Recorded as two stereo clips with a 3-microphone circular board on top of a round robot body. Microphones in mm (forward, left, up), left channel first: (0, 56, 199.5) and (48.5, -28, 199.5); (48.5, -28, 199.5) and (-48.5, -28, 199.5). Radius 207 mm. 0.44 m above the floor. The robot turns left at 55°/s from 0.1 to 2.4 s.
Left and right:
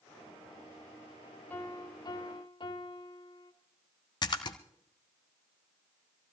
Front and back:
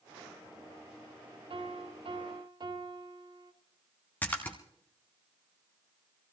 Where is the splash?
75° left, 0.7 m.